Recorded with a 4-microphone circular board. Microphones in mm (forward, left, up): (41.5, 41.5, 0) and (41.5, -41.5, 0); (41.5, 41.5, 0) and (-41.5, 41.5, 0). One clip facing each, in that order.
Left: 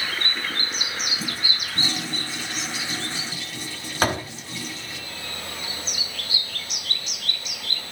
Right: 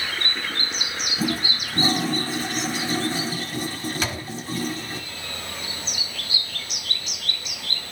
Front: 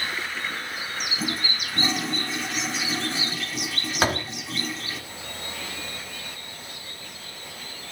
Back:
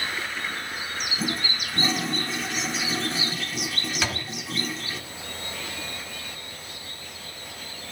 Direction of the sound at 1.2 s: 90° right.